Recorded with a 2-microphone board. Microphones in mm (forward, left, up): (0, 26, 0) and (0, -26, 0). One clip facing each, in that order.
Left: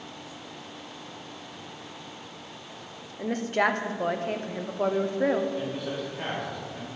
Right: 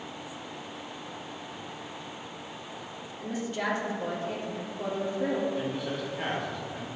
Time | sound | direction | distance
3.2 | a woman speaking | 50° left (ahead or behind) | 0.8 m
5.5 | a man speaking | centre (ahead or behind) | 2.5 m